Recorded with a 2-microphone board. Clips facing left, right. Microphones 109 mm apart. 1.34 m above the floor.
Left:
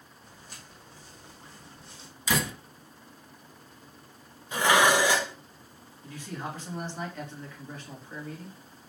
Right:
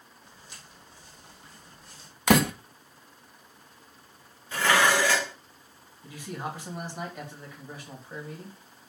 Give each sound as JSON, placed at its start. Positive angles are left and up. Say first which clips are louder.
{"t": 0.2, "sound": "footsteps", "louder": "left 2 dB", "side_deg": 50, "distance_m": 3.0}
{"t": 2.3, "sound": "a door slam", "louder": "right 8 dB", "side_deg": -65, "distance_m": 0.7}
{"t": 4.5, "sound": "dishes clattering", "louder": "left 1 dB", "side_deg": 15, "distance_m": 0.8}
{"t": 6.0, "sound": "a man speaking", "louder": "right 1 dB", "side_deg": -15, "distance_m": 2.5}